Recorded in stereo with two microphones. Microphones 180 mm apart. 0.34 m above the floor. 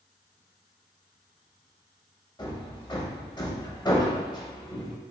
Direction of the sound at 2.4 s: 25° left (ahead or behind).